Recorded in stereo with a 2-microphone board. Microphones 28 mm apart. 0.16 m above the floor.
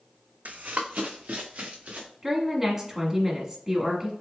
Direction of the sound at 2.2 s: 15° right (ahead or behind).